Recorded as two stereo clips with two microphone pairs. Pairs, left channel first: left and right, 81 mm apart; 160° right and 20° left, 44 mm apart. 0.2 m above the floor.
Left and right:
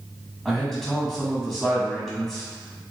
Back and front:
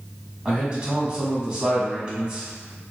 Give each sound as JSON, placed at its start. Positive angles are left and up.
{"t": 0.5, "sound": "a man speaking", "azimuth_deg": 15, "distance_m": 1.2}